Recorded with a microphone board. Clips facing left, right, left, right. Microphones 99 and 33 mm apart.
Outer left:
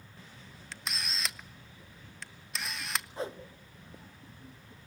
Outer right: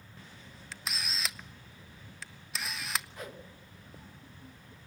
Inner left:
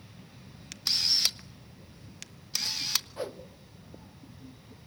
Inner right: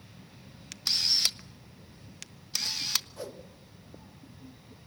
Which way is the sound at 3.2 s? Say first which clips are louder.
Outer left 7 dB, inner left 4 dB; 30° left (ahead or behind).